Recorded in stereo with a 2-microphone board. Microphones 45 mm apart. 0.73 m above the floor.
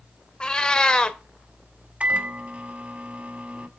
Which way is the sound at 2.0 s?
30° right (ahead or behind).